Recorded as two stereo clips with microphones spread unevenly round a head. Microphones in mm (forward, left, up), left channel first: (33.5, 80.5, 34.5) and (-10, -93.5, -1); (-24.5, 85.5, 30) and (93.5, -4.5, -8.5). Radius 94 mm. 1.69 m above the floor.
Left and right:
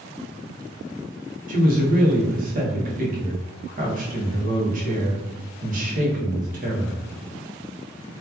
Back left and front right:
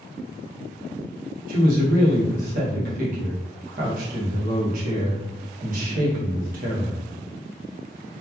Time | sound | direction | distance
1.5 | a man speaking | 65° right | 0.7 m